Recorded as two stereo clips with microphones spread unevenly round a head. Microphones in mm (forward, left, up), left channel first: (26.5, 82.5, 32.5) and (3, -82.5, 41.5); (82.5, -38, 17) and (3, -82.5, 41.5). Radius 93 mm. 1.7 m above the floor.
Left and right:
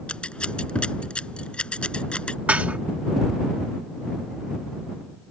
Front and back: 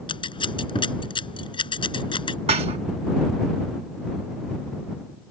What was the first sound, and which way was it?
Scissors, 5° right.